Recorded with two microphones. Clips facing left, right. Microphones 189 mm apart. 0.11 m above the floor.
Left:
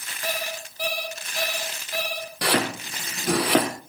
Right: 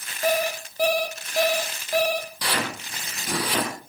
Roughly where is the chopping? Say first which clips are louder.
Left 5 dB; left.